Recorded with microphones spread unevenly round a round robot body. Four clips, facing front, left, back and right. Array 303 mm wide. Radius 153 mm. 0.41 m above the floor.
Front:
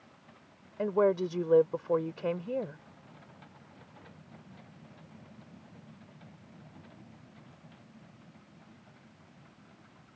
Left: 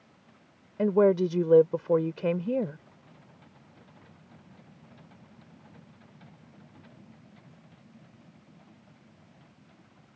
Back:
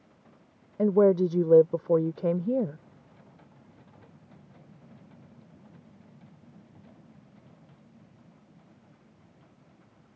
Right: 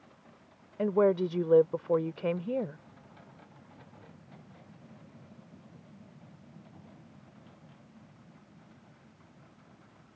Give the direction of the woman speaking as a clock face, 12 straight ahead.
7 o'clock.